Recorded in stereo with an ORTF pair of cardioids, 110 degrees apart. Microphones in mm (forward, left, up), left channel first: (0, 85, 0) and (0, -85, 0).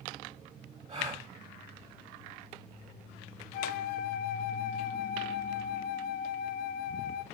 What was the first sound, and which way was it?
A gasp, 45° right.